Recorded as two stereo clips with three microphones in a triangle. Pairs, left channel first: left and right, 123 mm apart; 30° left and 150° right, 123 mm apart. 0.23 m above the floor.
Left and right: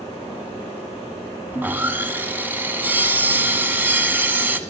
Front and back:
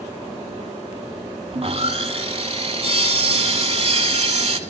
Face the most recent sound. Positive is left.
turn(degrees=-160)